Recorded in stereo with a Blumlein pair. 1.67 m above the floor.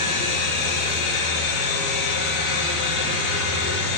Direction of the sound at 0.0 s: 45° left.